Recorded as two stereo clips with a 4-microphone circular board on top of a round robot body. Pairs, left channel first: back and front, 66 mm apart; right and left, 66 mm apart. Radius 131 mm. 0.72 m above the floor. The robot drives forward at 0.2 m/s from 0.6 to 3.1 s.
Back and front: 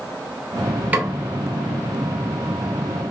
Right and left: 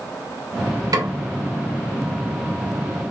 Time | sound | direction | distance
0.9 | a snare drum | 65° left | 0.6 m